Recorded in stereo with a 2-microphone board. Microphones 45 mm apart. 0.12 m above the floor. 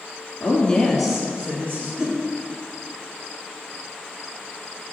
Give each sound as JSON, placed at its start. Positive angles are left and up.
{"t": 0.4, "sound": "a woman speaking", "side_deg": 40, "distance_m": 1.4}
{"t": 2.0, "sound": "a whoosh", "side_deg": -20, "distance_m": 1.7}